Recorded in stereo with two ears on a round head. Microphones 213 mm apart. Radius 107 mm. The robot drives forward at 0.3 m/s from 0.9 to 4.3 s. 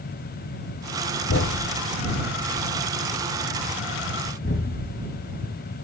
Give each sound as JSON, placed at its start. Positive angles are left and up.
{"t": 1.3, "sound": "a thud", "side_deg": 60, "distance_m": 1.4}